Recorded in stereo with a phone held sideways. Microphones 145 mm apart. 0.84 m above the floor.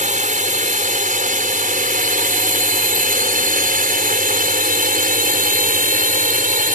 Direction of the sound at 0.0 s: 60° right (ahead or behind).